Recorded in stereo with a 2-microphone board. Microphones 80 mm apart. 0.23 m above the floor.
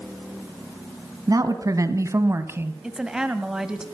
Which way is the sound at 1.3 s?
50° right (ahead or behind).